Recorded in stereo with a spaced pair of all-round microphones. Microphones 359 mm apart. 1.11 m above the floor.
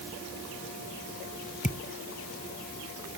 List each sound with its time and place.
1.6 s a thud: 20° left (ahead or behind)